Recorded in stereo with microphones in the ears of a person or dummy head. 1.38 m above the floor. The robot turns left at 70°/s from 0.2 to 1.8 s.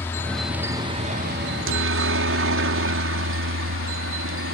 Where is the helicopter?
15° left (ahead or behind); by 4.5 s 65° right (ahead or behind).